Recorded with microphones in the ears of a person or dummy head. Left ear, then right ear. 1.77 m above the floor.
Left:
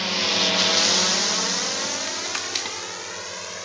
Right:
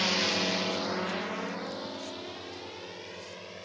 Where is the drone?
Centre (ahead or behind); by 3.7 s 60° left (ahead or behind).